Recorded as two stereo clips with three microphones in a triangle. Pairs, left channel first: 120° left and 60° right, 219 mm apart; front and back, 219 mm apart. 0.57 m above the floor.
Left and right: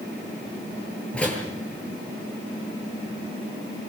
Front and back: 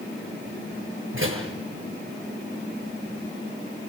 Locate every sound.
1.1 s a door slam: 155° right, 8 m